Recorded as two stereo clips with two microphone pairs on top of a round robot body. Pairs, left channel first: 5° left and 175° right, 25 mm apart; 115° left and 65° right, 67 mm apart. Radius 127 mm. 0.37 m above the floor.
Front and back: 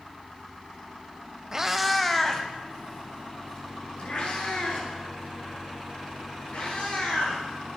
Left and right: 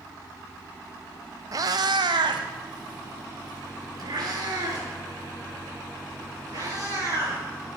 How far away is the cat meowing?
About 0.6 m.